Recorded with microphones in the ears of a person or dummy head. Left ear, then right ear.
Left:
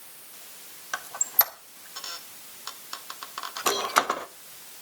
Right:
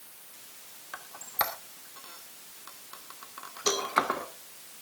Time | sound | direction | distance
0.9 | a squeak | 35° left (ahead or behind) | 1.1 m
3.7 | a cowbell | 70° right (ahead or behind) | 5.5 m